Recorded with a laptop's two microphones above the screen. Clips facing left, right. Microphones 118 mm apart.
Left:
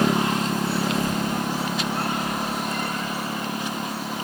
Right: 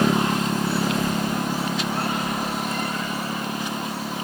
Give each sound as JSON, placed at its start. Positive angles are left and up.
{"t": 0.8, "sound": "a child speaking", "side_deg": -30, "distance_m": 6.0}